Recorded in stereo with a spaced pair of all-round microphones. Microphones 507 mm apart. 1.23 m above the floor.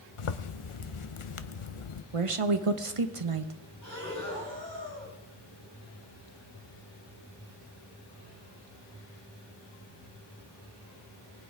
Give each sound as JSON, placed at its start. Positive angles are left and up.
{"t": 0.2, "sound": "a zipper", "side_deg": 75, "distance_m": 0.7}
{"t": 2.1, "sound": "a woman speaking", "side_deg": -85, "distance_m": 0.9}
{"t": 3.8, "sound": "breathing", "side_deg": 35, "distance_m": 4.5}